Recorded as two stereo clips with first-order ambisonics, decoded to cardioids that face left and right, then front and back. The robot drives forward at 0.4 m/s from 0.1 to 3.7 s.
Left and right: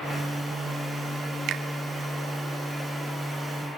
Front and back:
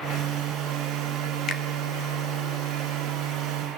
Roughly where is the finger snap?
Ahead right.